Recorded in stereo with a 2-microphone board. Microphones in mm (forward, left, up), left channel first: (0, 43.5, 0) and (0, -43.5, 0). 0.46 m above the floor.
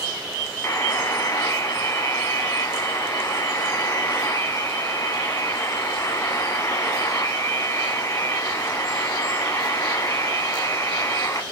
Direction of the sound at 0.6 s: 35° left (ahead or behind).